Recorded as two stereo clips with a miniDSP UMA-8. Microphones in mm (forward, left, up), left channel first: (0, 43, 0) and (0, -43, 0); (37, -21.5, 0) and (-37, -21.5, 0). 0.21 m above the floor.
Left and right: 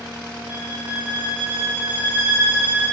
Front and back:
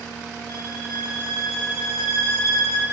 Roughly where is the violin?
Ahead.